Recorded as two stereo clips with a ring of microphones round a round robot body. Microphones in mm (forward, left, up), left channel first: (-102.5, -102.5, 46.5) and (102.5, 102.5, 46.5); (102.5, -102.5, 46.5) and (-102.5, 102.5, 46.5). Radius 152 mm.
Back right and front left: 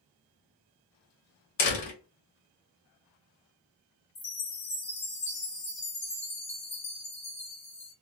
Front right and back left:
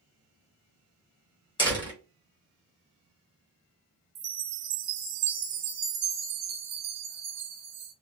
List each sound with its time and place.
1.6 s a door slam: 120° right, 1.6 m
4.2 s a chime: 160° left, 0.9 m